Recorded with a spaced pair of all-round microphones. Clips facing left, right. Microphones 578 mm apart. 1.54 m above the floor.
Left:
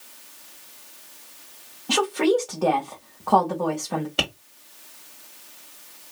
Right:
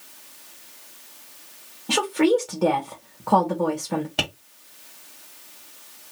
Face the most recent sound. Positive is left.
turn(degrees=-20)  # may be behind; listen again after turning